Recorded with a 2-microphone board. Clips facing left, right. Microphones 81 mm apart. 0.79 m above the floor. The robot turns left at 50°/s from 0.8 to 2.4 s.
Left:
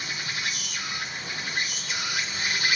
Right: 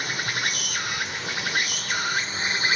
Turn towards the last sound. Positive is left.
turn(degrees=-145)